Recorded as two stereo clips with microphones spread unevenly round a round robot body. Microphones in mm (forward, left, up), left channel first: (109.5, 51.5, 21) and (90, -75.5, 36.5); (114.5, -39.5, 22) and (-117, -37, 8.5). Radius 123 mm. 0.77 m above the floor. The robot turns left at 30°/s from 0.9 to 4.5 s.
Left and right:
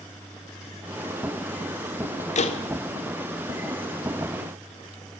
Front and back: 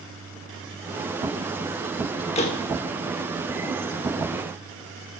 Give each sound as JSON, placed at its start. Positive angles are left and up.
{"t": 2.4, "sound": "a door slam", "azimuth_deg": 65, "distance_m": 1.3}